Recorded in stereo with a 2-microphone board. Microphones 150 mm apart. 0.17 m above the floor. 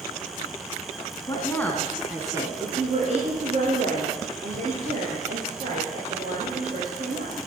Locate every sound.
1.3 s a woman speaking: 25° left (ahead or behind), 1.4 m; by 7.3 s 80° right, 6 m